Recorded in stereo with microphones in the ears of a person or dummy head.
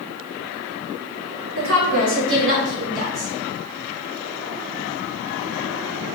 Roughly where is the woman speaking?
Right.